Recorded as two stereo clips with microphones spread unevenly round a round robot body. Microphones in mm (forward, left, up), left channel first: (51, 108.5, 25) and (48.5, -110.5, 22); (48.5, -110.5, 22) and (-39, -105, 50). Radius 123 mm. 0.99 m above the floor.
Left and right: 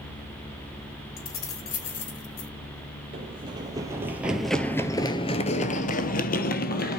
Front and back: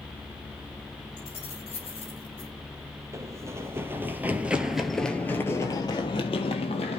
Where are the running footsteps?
155° right, 1.7 m; by 7.0 s 50° left, 1.7 m.